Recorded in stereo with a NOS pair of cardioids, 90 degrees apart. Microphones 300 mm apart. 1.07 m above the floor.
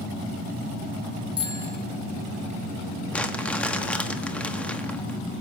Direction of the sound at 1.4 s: 15° left.